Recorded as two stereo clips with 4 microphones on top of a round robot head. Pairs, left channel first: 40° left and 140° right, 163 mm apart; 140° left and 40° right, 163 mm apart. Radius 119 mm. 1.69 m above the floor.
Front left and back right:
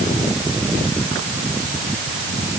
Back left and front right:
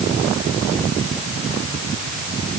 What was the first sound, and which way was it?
Only background noise.